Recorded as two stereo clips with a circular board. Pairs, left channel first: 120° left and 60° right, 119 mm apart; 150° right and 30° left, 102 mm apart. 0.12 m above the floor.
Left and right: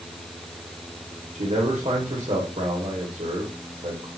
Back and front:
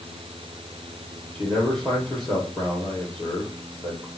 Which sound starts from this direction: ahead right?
A man speaking, at 1.4 s.